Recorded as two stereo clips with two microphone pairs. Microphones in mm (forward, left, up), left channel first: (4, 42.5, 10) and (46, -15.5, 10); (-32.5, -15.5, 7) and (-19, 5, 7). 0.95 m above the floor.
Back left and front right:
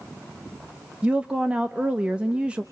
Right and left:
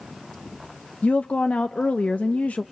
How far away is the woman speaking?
About 0.6 m.